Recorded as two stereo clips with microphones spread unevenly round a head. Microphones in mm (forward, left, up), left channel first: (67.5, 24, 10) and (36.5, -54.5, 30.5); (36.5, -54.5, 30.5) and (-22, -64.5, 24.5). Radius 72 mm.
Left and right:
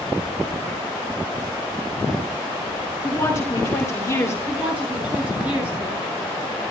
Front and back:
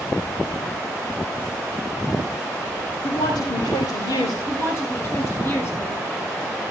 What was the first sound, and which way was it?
A woman speaking, 10° left.